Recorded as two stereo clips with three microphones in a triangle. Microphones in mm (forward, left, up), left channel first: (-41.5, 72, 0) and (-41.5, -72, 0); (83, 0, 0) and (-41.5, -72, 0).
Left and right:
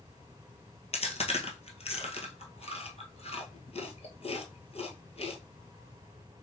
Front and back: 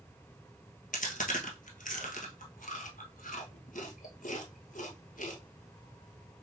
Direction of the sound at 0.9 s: 50° left.